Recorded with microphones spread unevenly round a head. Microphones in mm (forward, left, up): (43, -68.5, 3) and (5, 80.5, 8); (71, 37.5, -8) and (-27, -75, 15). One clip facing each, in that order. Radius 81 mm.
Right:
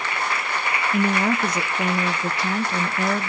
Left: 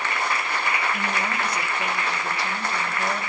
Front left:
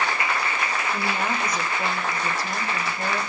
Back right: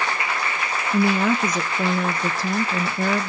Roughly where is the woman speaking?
Behind right.